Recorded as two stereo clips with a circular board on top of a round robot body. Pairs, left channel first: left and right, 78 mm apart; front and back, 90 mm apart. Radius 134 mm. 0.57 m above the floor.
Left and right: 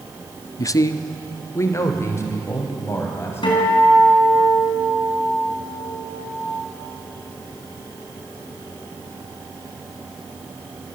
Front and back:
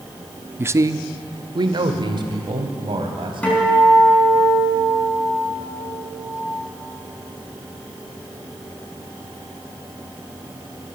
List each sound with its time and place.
0.6 s a man speaking: 120° left, 0.8 m; by 3.4 s 150° left, 4 m
3.4 s a guitar: 75° left, 4.5 m